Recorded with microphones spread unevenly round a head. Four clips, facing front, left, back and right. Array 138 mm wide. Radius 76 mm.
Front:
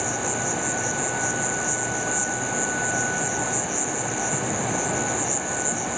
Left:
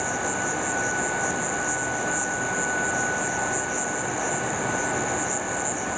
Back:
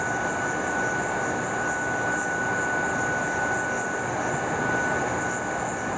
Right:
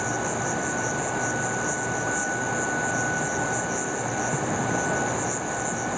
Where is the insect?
50° right, 1.2 m.